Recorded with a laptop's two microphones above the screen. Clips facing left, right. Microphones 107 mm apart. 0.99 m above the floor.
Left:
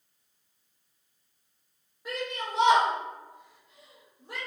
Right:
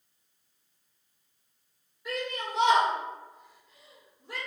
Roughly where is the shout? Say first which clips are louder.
Even; left.